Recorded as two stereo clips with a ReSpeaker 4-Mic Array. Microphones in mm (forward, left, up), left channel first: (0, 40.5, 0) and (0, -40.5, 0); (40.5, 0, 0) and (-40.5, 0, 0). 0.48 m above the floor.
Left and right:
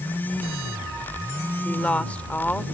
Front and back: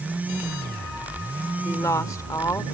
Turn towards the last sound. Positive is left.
turn(degrees=25)